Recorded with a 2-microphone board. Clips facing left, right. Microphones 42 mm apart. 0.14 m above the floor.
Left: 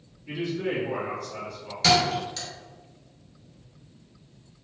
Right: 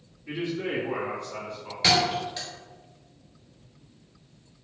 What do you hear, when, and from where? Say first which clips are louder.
0.3 s a man speaking: left 1 dB; 30° right (ahead or behind), 1.3 m; by 1.7 s 25° right (ahead or behind), 1.1 m
1.8 s a thud: left 1 dB; 15° right (ahead or behind), 1.0 m